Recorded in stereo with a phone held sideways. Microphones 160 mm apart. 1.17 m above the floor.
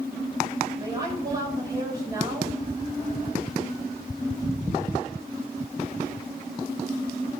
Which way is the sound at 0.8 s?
20° right (ahead or behind).